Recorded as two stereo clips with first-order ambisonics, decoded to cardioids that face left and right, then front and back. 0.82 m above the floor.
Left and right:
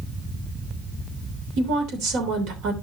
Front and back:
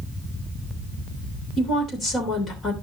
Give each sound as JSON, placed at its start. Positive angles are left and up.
{"t": 1.6, "sound": "a woman speaking", "azimuth_deg": -60, "distance_m": 3.0}